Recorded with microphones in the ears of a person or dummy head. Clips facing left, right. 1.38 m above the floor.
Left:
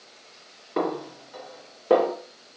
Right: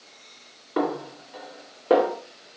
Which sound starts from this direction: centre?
A snare drum, at 0.8 s.